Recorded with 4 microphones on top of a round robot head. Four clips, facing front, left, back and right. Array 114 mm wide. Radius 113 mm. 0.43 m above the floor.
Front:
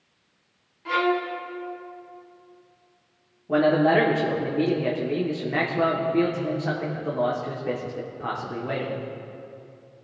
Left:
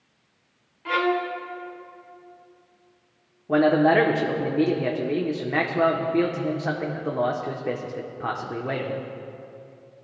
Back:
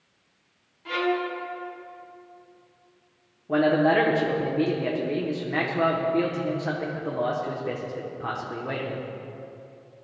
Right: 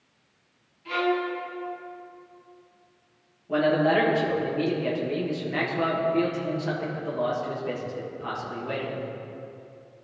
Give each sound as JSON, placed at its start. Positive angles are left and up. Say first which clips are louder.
{"t": 0.8, "sound": "a violin", "louder": "left 2 dB, front 2 dB", "azimuth_deg": 75, "distance_m": 2.0}
{"t": 3.5, "sound": "a man speaking", "louder": "left 4 dB, front 1 dB", "azimuth_deg": 90, "distance_m": 1.7}